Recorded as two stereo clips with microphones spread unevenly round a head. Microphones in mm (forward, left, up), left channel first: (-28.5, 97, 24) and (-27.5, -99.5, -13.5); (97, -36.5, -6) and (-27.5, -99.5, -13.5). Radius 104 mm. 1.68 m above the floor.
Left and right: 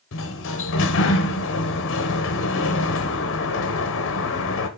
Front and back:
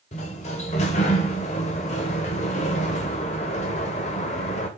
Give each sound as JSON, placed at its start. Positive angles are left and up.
{"t": 0.1, "sound": "a sliding door", "azimuth_deg": 75, "distance_m": 0.9}